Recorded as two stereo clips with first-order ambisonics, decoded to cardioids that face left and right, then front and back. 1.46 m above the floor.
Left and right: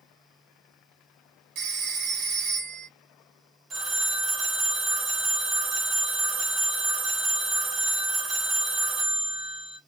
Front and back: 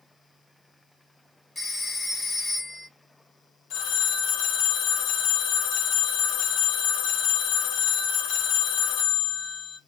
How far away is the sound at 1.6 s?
About 1.4 m.